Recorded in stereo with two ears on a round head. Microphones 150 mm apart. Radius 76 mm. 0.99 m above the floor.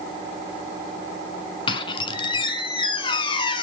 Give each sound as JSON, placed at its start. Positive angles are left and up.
{"t": 1.7, "sound": "a squeak", "side_deg": 30, "distance_m": 1.0}